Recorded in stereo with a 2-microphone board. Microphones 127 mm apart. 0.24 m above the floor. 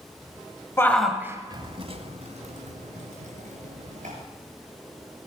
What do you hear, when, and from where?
0.8 s a shout: 20° left (ahead or behind), 0.9 m; by 4.1 s 75° right (ahead or behind), 4 m